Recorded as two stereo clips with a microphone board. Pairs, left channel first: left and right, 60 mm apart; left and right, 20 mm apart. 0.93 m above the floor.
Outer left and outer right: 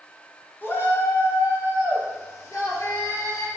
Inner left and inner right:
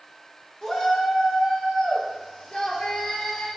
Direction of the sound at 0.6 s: 40° left (ahead or behind).